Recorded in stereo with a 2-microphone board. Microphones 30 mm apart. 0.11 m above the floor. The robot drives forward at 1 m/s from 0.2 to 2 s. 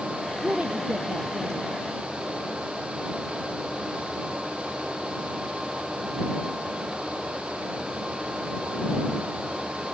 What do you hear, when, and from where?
0.4 s a woman speaking: 65° right (ahead or behind); by 1.8 s 50° right (ahead or behind)